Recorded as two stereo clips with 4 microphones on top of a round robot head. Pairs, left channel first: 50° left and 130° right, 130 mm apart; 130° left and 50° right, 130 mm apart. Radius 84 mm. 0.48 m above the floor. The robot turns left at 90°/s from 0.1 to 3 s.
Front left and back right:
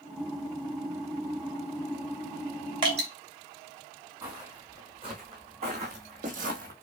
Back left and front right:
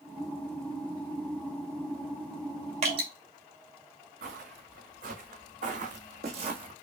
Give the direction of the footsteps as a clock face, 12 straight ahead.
2 o'clock.